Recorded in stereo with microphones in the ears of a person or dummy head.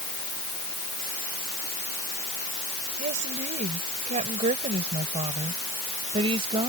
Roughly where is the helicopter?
No helicopter in this recording.